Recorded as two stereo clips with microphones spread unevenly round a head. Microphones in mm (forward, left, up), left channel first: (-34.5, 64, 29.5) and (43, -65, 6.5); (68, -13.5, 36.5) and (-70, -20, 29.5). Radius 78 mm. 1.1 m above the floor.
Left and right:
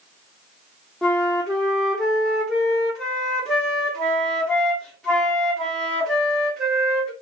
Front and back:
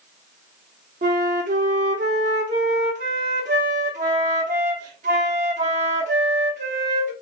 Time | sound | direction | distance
1.0 | a flute | 165° right | 0.8 m